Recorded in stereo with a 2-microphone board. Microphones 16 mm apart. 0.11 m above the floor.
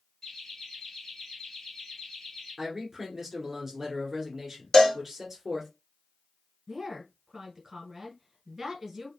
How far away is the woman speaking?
About 1.7 m.